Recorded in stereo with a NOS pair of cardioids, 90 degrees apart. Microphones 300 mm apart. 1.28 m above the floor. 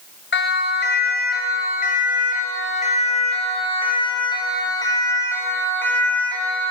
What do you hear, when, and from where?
0.3 s a siren: 40° left, 8 m; by 6.7 s 5° left, 9.5 m